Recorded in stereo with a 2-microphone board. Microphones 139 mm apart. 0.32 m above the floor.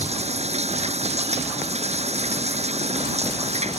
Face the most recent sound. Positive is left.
turn(degrees=-50)  # may be behind; listen again after turning